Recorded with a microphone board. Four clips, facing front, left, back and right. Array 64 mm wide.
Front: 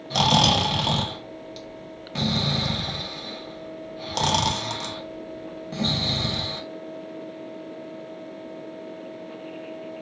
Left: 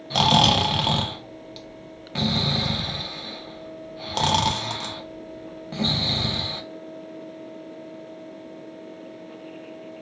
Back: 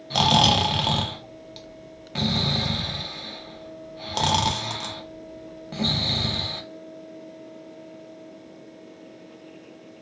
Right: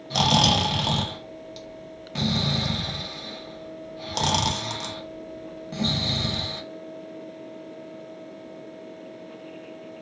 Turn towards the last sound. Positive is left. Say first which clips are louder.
# left 2 dB, back 1 dB
turn(degrees=110)